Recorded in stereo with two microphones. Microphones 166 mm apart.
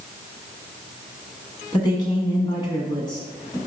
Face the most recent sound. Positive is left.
turn(degrees=25)  # may be behind; listen again after turning